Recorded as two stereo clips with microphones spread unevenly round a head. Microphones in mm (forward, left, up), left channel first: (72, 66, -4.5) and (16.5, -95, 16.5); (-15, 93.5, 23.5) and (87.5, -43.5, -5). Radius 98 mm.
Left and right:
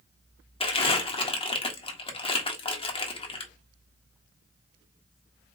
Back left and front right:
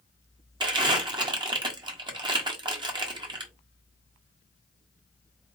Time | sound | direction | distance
0.6 | crumpling | 10° left | 1.4 m